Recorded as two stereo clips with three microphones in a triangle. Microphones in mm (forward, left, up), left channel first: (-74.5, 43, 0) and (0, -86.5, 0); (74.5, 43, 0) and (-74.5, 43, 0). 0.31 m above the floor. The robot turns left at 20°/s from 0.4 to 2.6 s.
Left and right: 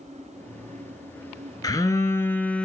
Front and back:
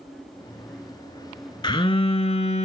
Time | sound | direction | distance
1.6 | a phone buzzing | 60° left | 0.6 m